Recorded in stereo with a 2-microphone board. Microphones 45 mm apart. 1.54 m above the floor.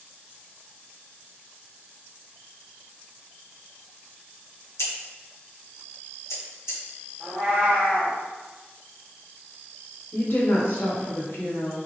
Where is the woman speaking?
55° left (ahead or behind), 1.5 m.